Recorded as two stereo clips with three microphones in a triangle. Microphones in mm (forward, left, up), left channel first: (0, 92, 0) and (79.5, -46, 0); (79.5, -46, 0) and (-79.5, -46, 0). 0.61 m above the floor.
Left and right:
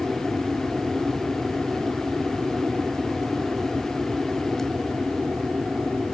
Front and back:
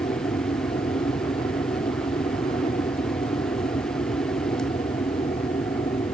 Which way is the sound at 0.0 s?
20° left.